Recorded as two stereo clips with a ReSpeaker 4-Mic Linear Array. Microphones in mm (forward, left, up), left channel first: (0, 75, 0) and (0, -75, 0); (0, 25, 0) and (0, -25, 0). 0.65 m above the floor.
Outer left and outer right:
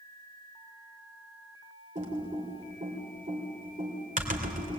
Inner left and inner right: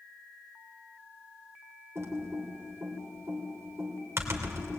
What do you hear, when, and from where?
1.9 s typing on a keyboard: 60° right (ahead or behind), 3 m